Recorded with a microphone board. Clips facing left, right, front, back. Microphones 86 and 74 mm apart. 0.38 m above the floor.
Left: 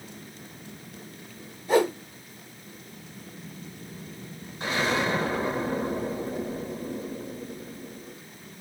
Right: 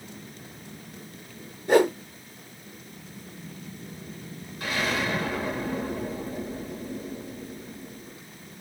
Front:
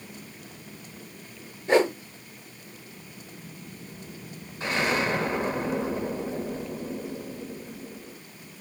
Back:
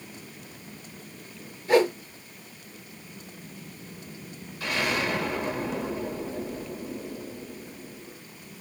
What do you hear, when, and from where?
1.7 s a whoosh: 60° right, 3.5 m
4.6 s an explosion: 45° left, 1.1 m